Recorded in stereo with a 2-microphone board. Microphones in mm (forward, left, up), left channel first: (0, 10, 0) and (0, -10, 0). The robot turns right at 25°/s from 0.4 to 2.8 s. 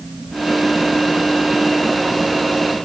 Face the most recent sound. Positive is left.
No sound to turn to.